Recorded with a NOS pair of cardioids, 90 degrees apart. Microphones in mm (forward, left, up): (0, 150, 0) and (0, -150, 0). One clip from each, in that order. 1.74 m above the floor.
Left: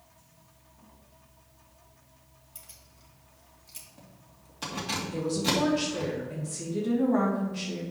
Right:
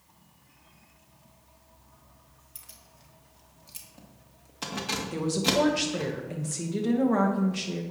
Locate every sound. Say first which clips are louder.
2.5 s keys jangling: right 1 dB; 20° right, 1.9 m
5.1 s a woman speaking: right 3 dB; 50° right, 2.5 m